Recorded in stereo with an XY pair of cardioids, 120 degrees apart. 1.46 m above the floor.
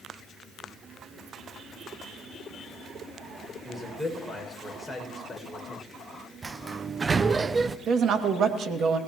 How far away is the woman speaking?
About 2.5 m.